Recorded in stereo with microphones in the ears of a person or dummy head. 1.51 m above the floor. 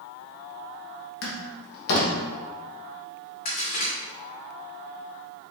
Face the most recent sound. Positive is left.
turn(degrees=45)  # may be behind; listen again after turning